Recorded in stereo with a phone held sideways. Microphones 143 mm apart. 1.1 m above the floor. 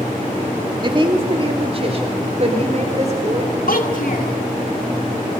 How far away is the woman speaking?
About 2.5 m.